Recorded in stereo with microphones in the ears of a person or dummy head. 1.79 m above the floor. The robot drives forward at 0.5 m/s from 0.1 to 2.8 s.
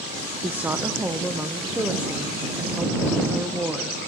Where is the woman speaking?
5° right (ahead or behind), 0.6 m; by 4.0 s centre (ahead or behind), 1.8 m.